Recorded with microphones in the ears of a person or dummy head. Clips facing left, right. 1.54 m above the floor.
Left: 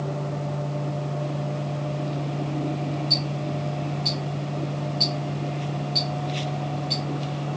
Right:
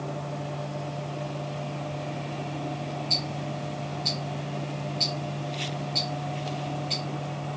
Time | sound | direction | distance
3.1 | ticking | 15° left (ahead or behind) | 1.3 m